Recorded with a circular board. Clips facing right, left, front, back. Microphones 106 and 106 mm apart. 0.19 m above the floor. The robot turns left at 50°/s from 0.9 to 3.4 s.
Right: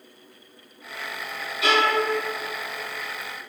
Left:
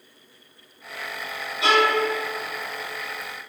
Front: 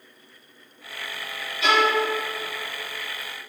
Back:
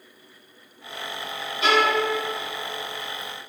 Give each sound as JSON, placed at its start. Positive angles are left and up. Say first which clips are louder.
{"t": 1.6, "sound": "a violin", "louder": "left 2 dB, even", "azimuth_deg": 145, "distance_m": 0.7}